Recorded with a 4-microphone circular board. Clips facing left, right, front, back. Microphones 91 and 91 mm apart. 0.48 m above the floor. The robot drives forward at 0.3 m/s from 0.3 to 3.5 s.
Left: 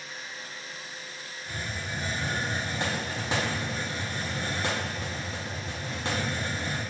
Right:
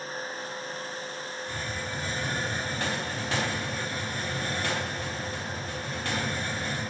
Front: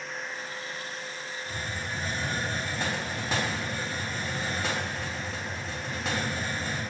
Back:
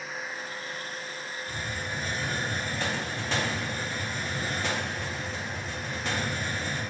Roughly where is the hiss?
Ahead left.